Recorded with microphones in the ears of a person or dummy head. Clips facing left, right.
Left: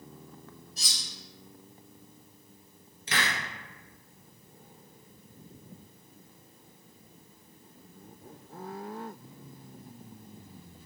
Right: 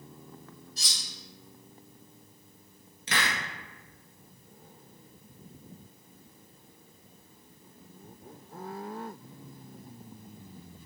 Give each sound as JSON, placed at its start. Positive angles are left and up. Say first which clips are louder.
{"t": 0.8, "sound": "cutlery clinking", "louder": "even", "side_deg": -60, "distance_m": 1.4}
{"t": 3.1, "sound": "a hiss", "louder": "even", "side_deg": -60, "distance_m": 0.8}